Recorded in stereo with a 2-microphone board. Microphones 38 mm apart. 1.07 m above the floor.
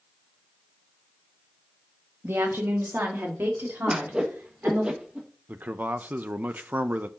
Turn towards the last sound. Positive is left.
turn(degrees=-50)  # may be behind; listen again after turning